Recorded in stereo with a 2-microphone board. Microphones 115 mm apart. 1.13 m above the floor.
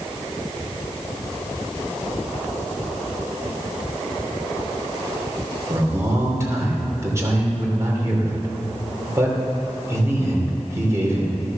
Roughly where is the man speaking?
Right.